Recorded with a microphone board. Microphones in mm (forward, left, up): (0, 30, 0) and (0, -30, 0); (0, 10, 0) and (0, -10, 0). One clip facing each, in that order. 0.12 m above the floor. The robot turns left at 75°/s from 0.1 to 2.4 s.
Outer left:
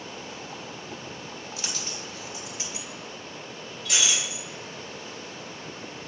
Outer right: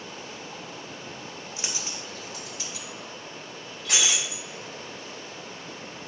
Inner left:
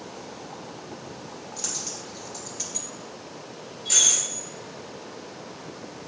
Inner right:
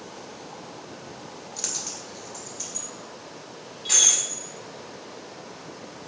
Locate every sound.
1.6 s a dropped coin: 25° right (ahead or behind), 0.9 m; by 2.9 s 20° left (ahead or behind), 0.9 m
3.9 s breaking glass: 65° right (ahead or behind), 2 m